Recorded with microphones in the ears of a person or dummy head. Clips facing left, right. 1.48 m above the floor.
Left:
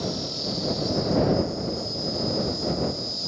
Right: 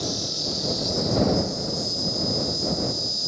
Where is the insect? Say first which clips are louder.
Left 1 dB; 15° right (ahead or behind).